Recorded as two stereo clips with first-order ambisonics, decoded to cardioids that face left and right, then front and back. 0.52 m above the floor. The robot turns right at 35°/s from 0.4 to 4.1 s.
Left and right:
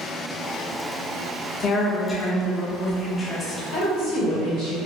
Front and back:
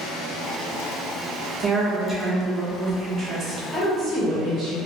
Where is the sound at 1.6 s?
115° left, 0.7 m; by 3.6 s 170° right, 0.7 m.